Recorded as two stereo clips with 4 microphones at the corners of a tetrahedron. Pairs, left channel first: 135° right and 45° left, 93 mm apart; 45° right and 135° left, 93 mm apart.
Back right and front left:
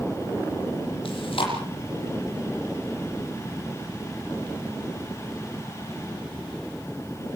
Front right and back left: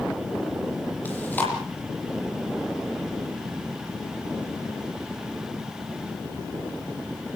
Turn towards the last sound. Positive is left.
turn(degrees=-115)